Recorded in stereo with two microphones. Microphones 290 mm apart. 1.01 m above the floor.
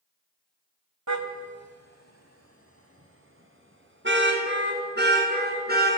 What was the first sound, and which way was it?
A car horn, 75° right (ahead or behind).